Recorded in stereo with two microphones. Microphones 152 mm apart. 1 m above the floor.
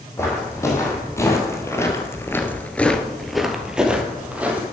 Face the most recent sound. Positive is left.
turn(degrees=-10)  # may be behind; listen again after turning